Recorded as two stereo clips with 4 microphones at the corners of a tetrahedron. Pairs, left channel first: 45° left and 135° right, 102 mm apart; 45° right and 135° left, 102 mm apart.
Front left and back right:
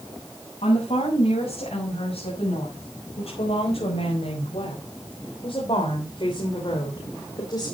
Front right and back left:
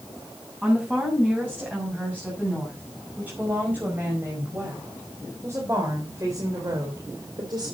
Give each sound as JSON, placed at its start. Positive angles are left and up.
{"t": 0.6, "sound": "a woman speaking", "azimuth_deg": 55, "distance_m": 7.5}